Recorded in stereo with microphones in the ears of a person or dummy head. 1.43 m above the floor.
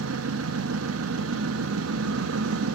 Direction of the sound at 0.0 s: 70° right (ahead or behind).